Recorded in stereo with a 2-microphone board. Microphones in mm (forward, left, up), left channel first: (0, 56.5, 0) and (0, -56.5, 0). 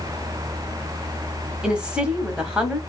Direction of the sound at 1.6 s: 10° right (ahead or behind).